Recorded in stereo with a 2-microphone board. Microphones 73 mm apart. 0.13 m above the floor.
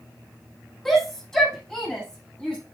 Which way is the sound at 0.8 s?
5° left (ahead or behind).